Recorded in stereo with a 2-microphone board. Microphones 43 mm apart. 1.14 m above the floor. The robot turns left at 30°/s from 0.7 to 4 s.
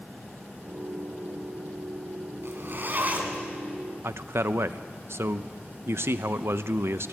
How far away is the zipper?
About 2.5 m.